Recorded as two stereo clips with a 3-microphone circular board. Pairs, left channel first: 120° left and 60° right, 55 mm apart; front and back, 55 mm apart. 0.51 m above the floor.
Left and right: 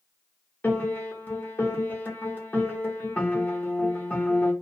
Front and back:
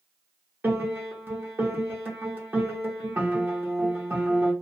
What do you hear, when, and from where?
0.6 s a piano: 150° left, 0.9 m